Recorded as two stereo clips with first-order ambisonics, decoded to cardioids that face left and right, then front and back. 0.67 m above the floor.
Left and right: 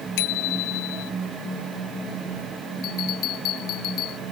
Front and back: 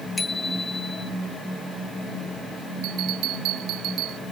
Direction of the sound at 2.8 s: 135° left.